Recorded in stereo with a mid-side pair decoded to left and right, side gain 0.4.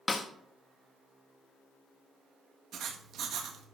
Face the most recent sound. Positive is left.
turn(degrees=-70)